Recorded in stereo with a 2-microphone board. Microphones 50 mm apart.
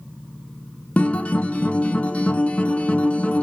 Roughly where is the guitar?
Left.